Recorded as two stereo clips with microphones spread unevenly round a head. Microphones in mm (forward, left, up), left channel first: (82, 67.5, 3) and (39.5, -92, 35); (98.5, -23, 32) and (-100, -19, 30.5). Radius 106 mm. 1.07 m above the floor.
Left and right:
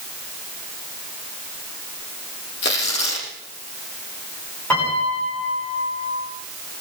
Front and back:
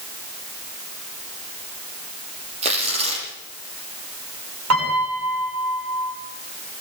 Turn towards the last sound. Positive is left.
turn(degrees=160)